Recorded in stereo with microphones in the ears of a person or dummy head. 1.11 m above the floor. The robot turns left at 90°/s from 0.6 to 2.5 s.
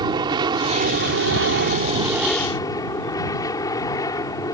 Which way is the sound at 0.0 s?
20° right.